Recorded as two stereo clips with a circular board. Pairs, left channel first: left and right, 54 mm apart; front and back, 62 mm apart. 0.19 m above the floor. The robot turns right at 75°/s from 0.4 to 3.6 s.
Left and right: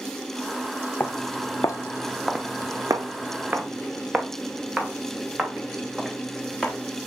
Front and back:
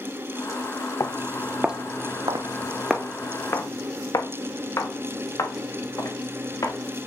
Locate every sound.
1.0 s footsteps: 30° left, 0.8 m; by 7.1 s straight ahead, 2.5 m